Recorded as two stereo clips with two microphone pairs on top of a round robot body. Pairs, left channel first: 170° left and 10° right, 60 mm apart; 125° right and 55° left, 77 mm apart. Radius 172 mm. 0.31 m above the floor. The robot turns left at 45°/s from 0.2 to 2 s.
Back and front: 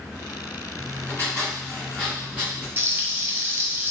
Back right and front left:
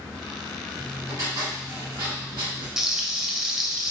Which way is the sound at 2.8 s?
10° right.